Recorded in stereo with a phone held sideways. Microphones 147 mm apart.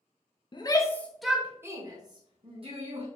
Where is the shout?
35° left (ahead or behind), 0.7 m; by 3.1 s 45° right (ahead or behind), 1.4 m.